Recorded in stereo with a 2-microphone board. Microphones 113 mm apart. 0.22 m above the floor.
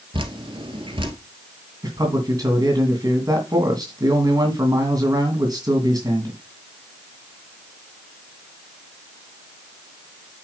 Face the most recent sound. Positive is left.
turn(degrees=-35)  # may be behind; listen again after turning